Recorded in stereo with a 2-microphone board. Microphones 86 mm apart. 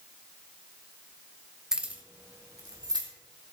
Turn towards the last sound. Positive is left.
turn(degrees=-55)  # may be behind; listen again after turning